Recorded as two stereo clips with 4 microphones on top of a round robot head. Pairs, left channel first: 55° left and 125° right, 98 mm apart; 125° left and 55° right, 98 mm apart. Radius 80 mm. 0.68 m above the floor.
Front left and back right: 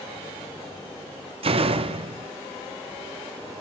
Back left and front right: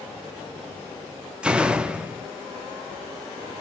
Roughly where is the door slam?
Behind right.